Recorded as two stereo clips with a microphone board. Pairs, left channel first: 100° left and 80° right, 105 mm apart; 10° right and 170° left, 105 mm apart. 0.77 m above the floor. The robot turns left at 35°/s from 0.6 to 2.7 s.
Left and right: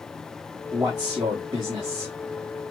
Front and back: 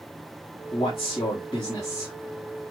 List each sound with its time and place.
0.7 s a man speaking: 20° right, 1.4 m; by 2.1 s 70° right, 1.4 m